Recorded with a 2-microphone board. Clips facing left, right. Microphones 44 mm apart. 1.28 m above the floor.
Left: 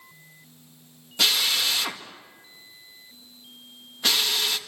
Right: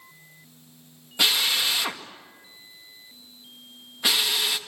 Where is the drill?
15° right (ahead or behind), 2.0 m.